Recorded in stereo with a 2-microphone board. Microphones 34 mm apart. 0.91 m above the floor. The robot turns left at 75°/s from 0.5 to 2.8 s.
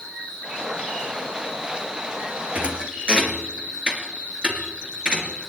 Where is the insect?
80° left, 6 m; by 5.5 s 90° right, 6 m.